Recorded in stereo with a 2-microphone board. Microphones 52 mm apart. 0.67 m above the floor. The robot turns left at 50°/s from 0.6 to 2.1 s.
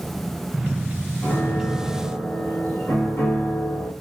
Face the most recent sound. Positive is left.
turn(degrees=55)